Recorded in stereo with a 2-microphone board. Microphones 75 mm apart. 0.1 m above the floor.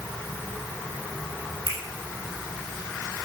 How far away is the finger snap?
About 3.5 m.